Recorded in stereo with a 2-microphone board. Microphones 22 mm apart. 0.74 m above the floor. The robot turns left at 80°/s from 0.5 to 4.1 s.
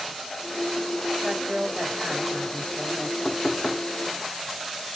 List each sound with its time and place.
1.2 s a woman speaking: 40° right, 3.5 m; by 3.1 s 170° left, 3.5 m
3.2 s knocking: 170° left, 1.2 m; by 3.9 s 120° left, 1.2 m